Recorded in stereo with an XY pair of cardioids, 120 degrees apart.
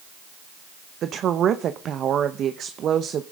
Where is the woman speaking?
50° right, 0.9 m.